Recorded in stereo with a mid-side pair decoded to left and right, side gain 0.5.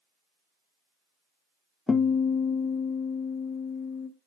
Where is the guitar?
25° left, 0.7 m.